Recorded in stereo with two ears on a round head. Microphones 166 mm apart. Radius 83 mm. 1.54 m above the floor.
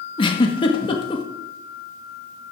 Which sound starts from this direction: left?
A giggle, at 0.2 s.